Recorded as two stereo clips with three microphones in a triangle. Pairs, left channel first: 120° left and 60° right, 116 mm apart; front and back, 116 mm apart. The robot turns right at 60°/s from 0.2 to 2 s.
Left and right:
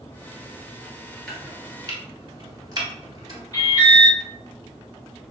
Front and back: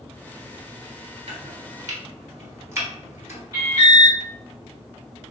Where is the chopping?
155° right, 1.0 m; by 3.4 s 110° right, 1.0 m.